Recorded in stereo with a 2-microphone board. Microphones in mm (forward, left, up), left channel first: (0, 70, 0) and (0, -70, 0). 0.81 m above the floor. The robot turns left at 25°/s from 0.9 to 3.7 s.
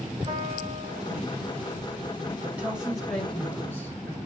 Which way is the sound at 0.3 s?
45° right (ahead or behind).